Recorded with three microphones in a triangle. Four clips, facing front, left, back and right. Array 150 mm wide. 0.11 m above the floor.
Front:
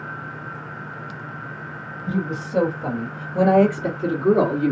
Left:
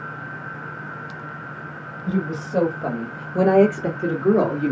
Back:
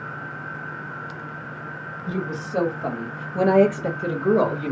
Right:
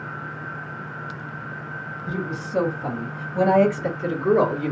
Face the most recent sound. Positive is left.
turn(degrees=75)